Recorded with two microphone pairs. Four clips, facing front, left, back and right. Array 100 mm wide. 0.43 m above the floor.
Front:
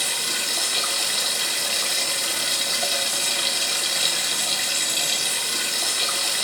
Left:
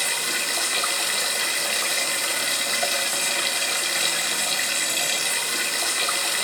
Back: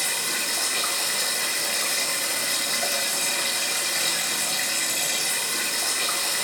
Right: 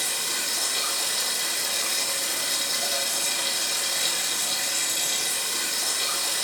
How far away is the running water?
About 1.5 m.